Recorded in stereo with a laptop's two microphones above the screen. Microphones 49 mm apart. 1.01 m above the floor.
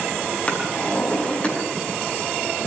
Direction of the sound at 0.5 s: 25° left (ahead or behind).